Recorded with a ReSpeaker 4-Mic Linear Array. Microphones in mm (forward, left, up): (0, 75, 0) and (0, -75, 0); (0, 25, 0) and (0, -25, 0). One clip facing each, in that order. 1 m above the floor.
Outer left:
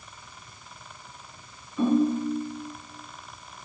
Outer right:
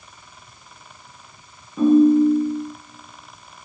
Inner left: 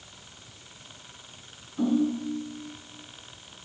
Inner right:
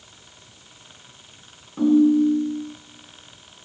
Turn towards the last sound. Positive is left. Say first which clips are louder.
# outer right 10 dB, inner right 10 dB
turn(degrees=-60)  # may be behind; listen again after turning